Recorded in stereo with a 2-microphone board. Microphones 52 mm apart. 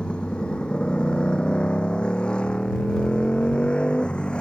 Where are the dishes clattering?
No dishes clattering in this recording.